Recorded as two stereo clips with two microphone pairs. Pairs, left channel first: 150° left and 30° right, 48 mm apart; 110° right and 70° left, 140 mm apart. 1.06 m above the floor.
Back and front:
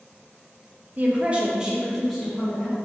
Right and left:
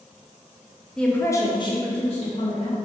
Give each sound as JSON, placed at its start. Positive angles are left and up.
{"t": 1.0, "sound": "a woman speaking", "azimuth_deg": -25, "distance_m": 0.6}